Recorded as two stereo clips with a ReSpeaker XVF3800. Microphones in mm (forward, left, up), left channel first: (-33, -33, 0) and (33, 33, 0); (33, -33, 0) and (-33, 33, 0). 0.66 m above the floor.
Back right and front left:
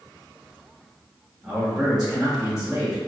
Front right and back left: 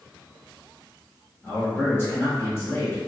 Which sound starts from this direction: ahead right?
A man speaking, at 1.4 s.